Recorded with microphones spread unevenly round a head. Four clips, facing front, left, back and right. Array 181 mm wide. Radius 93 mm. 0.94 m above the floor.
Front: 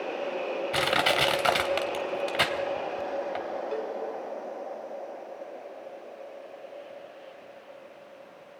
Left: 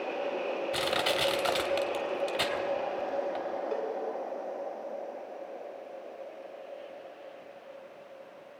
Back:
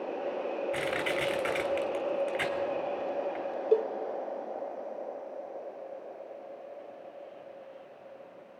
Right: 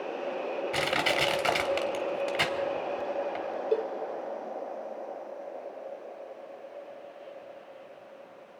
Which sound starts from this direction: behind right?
A cowbell, at 3.7 s.